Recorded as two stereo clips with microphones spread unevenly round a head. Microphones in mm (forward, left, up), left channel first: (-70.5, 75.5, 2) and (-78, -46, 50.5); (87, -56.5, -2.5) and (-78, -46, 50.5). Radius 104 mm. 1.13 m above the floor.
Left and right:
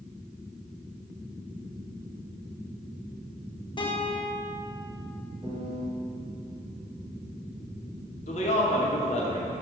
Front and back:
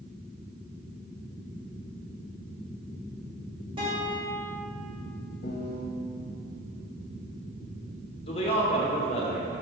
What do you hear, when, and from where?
3.8 s a guitar: 105° left, 1.1 m
5.4 s a piano: straight ahead, 0.6 m
8.3 s a man speaking: 55° left, 0.9 m